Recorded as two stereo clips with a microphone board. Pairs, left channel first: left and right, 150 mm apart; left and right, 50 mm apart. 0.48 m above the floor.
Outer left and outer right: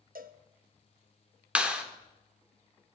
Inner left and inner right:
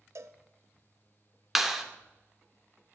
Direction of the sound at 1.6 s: 5° right (ahead or behind).